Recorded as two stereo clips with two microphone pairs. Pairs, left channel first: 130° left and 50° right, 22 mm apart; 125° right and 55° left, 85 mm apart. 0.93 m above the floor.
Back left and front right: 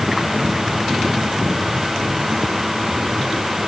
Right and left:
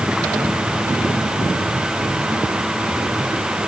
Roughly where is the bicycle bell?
No bicycle bell in this recording.